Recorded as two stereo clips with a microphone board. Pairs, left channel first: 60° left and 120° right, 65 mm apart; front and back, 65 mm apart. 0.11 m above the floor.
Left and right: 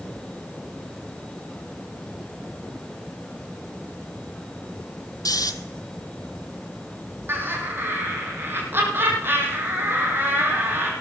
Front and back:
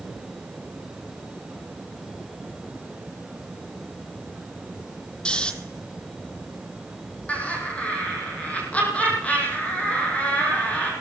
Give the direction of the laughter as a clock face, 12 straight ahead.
2 o'clock.